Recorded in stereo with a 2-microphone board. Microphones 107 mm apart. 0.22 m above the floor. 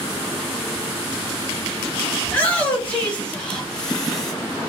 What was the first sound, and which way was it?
A shout, 15° left (ahead or behind).